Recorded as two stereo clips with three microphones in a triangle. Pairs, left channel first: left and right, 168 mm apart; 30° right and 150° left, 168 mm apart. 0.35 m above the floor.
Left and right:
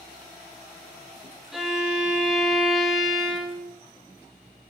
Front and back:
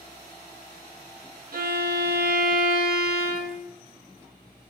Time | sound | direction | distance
1.5 | a violin | straight behind | 0.5 m